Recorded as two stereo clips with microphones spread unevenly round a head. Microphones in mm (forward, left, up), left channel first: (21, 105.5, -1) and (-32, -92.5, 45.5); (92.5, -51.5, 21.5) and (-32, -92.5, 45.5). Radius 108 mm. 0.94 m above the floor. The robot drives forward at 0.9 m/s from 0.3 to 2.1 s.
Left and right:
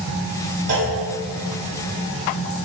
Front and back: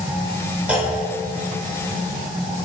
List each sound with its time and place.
0.7 s a clunk: 80° right, 3 m; by 0.9 s 85° right, 3 m